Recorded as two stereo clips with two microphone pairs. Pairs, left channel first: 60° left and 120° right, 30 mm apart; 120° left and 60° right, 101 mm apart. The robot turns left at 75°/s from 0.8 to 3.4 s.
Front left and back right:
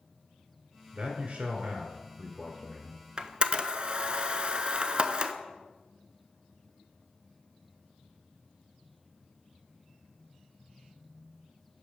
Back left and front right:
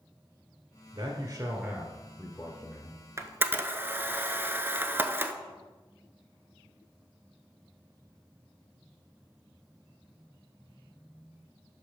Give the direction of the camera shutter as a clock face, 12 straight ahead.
3 o'clock.